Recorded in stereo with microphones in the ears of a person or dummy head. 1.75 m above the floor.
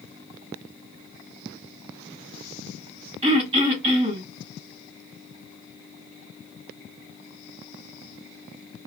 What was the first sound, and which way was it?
Throat clearing, 35° right (ahead or behind).